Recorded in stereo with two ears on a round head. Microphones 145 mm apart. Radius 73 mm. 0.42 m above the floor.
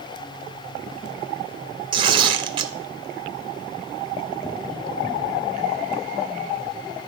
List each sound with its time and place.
1.9 s tearing paper: 30° right (ahead or behind), 0.9 m